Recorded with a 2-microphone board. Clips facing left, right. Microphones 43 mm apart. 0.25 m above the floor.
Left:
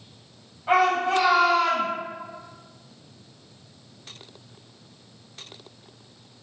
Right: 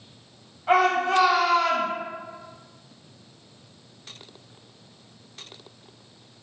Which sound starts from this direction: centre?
A shout, at 0.7 s.